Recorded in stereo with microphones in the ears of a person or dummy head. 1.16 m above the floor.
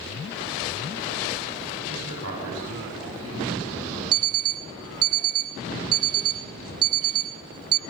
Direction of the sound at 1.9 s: 85° right.